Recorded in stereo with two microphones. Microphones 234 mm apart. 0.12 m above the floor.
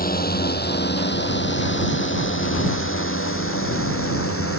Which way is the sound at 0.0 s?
40° left (ahead or behind).